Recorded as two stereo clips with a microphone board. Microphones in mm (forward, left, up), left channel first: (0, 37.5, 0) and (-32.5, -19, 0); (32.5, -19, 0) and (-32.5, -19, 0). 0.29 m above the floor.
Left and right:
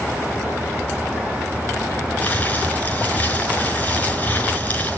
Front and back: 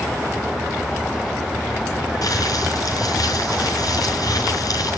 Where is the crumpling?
Straight ahead, 5 m.